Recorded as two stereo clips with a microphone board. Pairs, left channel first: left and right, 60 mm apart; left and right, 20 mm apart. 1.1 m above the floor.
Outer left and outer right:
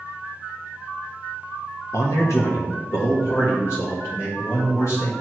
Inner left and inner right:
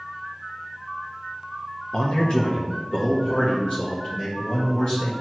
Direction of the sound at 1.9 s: 55° left (ahead or behind).